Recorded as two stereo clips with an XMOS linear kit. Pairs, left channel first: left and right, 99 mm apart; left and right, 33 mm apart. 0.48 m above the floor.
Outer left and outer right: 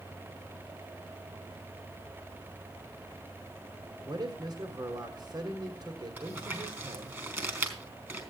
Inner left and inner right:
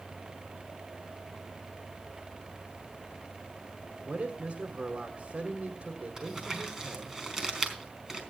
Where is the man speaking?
45° right (ahead or behind), 2 m.